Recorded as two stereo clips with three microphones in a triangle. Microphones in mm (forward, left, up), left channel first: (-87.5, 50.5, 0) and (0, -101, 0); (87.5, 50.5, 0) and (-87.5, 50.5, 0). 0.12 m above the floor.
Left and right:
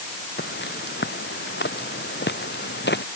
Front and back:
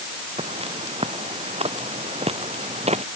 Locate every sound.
0.4 s footsteps: 125° left; by 3.0 s 130° left